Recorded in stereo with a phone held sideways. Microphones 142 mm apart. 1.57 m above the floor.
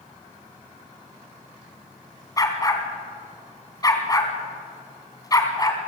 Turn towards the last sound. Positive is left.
turn(degrees=25)  # may be behind; listen again after turning